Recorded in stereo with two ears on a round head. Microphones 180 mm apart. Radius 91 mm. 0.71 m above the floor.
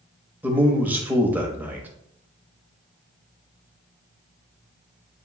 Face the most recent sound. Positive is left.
turn(degrees=-10)  # may be behind; listen again after turning